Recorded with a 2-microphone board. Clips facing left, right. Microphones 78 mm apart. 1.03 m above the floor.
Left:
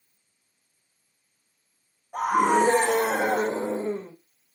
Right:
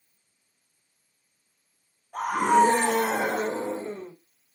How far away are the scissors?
I don't hear scissors.